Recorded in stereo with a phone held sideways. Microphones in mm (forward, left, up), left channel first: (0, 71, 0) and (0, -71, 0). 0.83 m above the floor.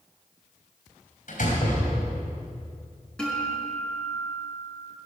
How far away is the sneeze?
No sneeze in this recording.